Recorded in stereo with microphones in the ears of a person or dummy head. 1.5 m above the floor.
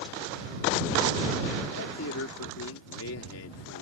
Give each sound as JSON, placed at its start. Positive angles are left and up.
{"t": 1.8, "sound": "a man speaking", "side_deg": 85}